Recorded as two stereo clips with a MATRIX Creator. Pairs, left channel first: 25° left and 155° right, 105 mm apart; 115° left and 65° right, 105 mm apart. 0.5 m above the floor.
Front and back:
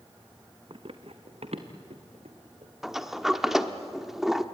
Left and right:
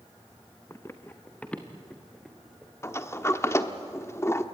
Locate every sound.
0.7 s running footsteps: 175° left, 1.5 m; by 2.7 s 155° right, 2.5 m
2.8 s a sliding door: 120° left, 1.1 m